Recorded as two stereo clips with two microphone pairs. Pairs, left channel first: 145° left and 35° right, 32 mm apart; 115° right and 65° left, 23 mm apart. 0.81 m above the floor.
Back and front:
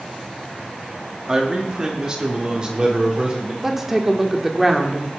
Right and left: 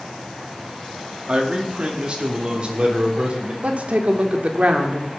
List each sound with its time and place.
1.3 s a man speaking: 30° left, 1.9 m; by 3.5 s 25° left, 3 m
3.6 s a woman speaking: 45° left, 1.6 m